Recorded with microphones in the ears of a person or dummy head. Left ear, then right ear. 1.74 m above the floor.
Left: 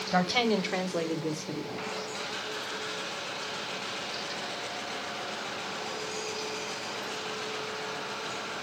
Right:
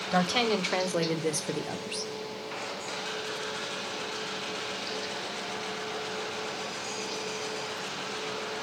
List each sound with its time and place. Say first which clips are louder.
0.1 s a woman speaking: even; 5° right (ahead or behind), 1.1 m; by 2.1 s 50° right (ahead or behind), 0.8 m